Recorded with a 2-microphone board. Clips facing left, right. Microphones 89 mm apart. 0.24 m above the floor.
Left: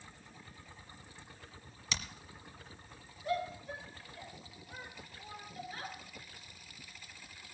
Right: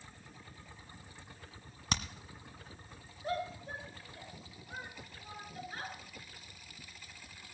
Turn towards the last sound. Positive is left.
turn(degrees=-40)  # may be behind; listen again after turning